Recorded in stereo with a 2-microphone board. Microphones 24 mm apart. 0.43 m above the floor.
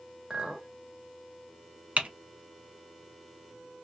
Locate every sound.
0.3 s a clink: 40° right (ahead or behind), 0.9 m
2.0 s typing on a keyboard: 75° right (ahead or behind), 0.8 m